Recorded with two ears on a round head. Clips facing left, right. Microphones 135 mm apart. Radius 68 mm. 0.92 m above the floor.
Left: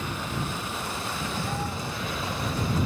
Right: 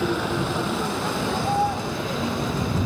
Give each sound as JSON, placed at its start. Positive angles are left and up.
{"t": 0.0, "sound": "a vehicle", "side_deg": -60}